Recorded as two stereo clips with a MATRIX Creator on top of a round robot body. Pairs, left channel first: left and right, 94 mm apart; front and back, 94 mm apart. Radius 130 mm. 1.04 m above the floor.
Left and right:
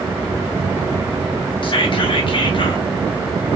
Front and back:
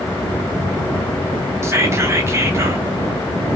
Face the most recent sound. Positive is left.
turn(degrees=120)